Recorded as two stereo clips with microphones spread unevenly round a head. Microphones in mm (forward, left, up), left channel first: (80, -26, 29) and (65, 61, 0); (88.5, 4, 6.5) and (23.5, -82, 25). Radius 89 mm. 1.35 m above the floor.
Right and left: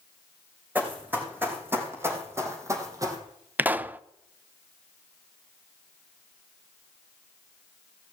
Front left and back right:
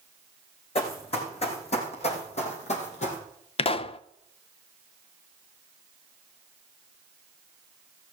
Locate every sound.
0.8 s running footsteps: 25° left, 4.5 m; by 3.2 s 45° left, 3 m
3.6 s a pop: 20° left, 0.6 m